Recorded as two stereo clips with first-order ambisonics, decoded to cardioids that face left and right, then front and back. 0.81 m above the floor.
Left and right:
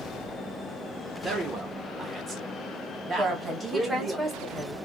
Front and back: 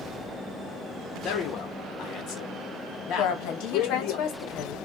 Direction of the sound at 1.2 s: 25° right.